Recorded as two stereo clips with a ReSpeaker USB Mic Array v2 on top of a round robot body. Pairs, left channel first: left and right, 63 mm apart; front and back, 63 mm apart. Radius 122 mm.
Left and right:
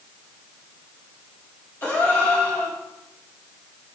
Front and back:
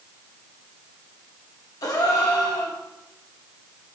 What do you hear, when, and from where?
1.8 s a gasp: 25° left, 0.9 m